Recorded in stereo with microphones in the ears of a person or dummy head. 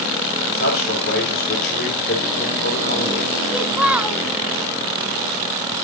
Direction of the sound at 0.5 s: 60° left (ahead or behind).